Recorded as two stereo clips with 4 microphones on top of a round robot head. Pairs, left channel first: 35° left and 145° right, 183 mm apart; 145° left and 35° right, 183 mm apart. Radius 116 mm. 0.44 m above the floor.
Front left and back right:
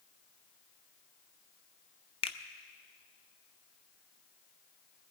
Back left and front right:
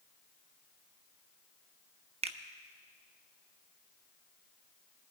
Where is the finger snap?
Straight ahead, 0.8 m.